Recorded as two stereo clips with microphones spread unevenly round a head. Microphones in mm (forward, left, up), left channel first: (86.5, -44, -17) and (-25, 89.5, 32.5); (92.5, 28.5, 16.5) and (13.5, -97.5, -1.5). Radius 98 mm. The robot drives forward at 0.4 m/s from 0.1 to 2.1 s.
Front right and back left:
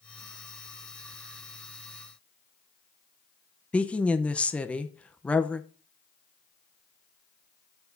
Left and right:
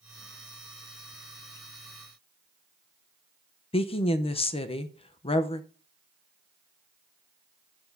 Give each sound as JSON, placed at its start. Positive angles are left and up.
{"t": 3.7, "sound": "a woman speaking", "azimuth_deg": 15, "distance_m": 0.8}